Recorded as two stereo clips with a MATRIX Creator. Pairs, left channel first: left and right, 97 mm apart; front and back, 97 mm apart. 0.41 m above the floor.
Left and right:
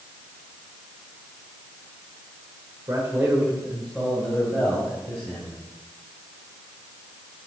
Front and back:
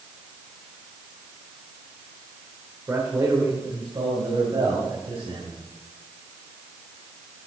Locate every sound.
2.9 s a man speaking: 130° right, 1.8 m; by 5.5 s 150° left, 4 m